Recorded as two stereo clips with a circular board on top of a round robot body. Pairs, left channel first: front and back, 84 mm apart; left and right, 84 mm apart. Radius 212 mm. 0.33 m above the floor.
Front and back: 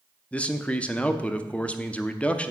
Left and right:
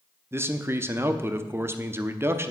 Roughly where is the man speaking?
Ahead right.